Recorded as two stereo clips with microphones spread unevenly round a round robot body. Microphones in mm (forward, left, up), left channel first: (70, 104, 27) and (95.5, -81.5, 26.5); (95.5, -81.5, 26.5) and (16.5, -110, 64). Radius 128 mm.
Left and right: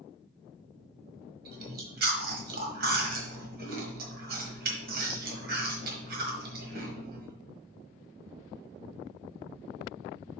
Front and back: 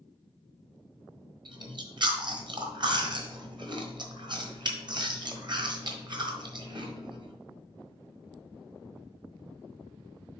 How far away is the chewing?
About 1.3 m.